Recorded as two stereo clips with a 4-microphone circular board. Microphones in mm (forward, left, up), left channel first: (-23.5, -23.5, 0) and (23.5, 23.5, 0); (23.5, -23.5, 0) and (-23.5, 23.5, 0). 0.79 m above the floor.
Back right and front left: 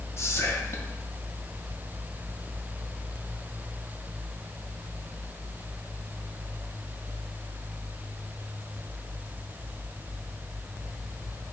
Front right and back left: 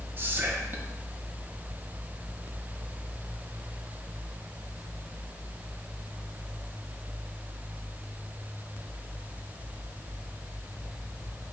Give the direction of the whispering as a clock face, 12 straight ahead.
6 o'clock.